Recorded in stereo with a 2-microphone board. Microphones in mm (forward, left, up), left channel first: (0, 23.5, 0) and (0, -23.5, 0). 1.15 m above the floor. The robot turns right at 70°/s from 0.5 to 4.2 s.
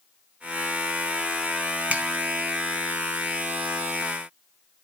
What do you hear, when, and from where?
1.9 s a finger snap: 30° right (ahead or behind), 0.7 m; by 2.0 s 40° right (ahead or behind), 0.7 m